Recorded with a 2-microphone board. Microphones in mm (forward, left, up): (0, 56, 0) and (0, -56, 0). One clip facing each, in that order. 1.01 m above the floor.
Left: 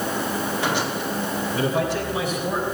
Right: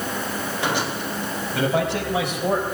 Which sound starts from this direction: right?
A man speaking, at 1.5 s.